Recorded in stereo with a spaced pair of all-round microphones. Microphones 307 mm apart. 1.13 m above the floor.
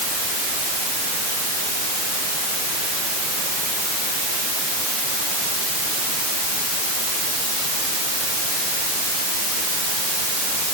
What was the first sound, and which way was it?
Only background noise.